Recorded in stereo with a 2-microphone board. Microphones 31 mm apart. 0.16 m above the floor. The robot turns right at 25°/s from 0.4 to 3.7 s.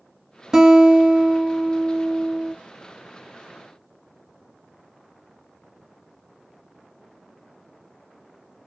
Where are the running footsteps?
No running footsteps in this recording.